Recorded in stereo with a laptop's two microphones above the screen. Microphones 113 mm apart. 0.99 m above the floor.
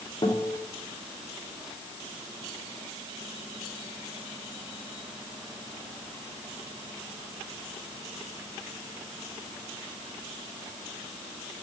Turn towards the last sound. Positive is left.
turn(degrees=45)  # may be behind; listen again after turning